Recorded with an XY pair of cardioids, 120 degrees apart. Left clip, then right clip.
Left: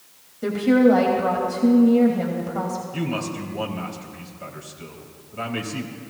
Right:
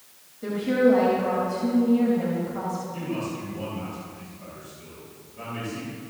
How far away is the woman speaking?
About 3 m.